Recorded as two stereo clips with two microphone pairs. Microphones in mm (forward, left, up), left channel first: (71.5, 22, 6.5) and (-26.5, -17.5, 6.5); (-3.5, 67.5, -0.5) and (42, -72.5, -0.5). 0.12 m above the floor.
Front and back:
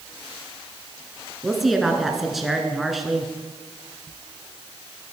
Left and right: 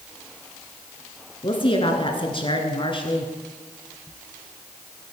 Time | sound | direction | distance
1.4 | a woman speaking | 115° left | 1.4 m